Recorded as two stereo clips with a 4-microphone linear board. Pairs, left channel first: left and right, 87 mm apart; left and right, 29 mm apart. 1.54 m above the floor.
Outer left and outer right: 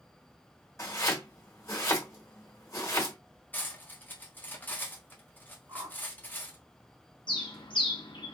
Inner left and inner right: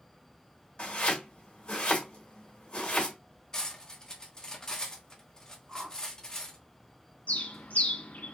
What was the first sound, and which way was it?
Chopping, 35° left (ahead or behind).